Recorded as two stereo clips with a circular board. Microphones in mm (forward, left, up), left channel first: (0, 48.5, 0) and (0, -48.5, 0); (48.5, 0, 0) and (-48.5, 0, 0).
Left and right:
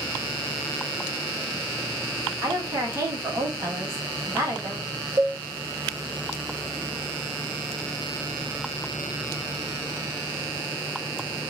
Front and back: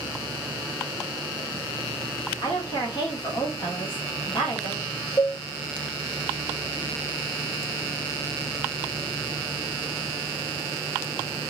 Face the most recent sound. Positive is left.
turn(degrees=-50)